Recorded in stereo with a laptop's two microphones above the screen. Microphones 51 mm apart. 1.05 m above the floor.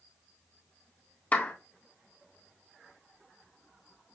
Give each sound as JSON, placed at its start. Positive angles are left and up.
{"t": 1.3, "sound": "a clap", "side_deg": 35, "distance_m": 1.4}